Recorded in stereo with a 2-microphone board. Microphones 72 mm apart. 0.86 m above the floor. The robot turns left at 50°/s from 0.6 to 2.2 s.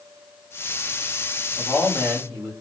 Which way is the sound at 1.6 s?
10° left.